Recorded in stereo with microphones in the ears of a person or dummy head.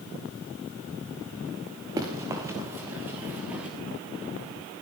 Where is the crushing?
No crushing in this recording.